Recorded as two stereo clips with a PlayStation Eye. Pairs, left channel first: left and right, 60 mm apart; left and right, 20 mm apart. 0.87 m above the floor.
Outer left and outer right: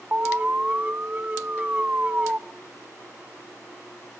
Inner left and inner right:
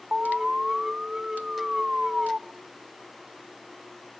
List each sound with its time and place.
0.1 s an alarm: 25° right (ahead or behind), 0.6 m